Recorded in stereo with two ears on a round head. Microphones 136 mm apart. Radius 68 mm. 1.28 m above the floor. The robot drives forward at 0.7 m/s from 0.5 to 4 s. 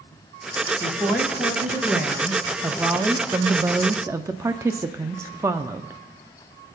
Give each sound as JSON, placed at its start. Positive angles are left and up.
{"t": 0.8, "sound": "a woman speaking", "side_deg": -5, "distance_m": 2.0}